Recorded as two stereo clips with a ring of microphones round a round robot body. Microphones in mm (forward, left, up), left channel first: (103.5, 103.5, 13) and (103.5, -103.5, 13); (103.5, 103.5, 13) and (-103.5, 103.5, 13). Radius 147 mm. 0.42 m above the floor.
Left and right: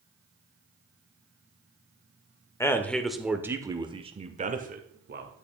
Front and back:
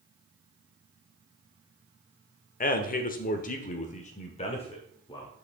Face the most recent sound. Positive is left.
turn(degrees=-70)